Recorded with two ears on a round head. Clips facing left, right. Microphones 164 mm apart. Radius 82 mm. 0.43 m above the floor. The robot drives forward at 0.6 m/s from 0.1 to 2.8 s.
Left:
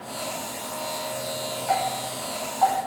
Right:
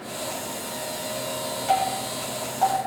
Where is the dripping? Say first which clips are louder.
Right 2 dB; 45° right (ahead or behind), 7 m; by 2.8 s 40° right (ahead or behind), 7.5 m.